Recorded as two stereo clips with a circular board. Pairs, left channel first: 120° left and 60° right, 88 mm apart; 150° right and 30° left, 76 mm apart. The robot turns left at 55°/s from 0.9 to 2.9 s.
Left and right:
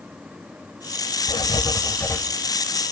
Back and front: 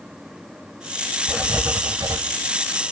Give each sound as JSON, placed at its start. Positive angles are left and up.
{"t": 1.3, "sound": "writing", "azimuth_deg": 105, "distance_m": 0.6}